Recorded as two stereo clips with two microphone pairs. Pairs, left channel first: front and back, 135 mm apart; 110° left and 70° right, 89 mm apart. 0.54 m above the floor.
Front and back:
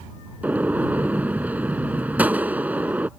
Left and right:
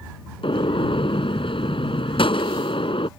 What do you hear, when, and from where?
0.4 s a gunshot: 105° left